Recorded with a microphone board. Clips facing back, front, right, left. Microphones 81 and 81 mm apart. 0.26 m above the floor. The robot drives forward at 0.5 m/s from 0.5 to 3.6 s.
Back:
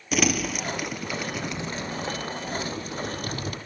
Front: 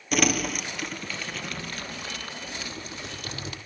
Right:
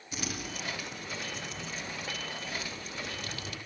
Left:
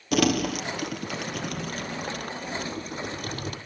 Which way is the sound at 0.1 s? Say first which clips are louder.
Even, left 16 dB; 95° left.